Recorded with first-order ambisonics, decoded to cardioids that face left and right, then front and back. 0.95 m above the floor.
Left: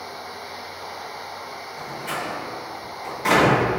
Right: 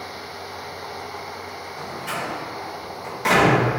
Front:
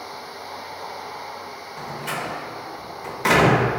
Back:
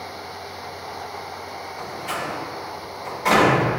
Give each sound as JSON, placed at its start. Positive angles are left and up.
{"t": 1.8, "sound": "a door slam", "azimuth_deg": -15, "distance_m": 1.0}